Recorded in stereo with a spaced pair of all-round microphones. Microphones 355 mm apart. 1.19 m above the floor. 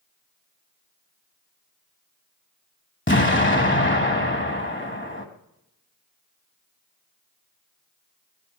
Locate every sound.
3.1 s an explosion: 30° left (ahead or behind), 1.2 m